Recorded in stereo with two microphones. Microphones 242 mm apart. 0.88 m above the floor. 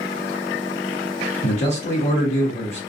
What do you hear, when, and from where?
1.4 s a man speaking: 25° left (ahead or behind), 0.9 m